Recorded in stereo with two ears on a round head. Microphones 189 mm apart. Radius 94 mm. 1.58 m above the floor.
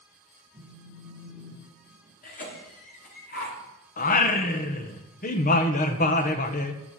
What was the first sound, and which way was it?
A phone buzzing, 10° right (ahead or behind).